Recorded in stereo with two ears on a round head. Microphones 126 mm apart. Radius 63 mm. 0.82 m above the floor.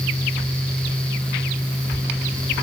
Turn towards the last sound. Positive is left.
No sound to turn to.